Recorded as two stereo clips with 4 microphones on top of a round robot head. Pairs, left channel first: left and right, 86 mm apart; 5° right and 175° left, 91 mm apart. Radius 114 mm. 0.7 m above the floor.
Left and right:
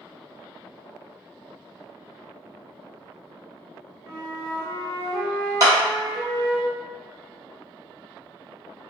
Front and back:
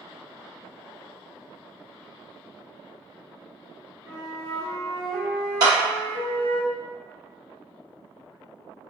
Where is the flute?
60° left, 0.5 m.